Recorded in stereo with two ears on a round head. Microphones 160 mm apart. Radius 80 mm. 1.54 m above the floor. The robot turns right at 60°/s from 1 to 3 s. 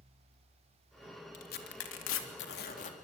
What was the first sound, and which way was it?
Tearing paper, 45° left (ahead or behind).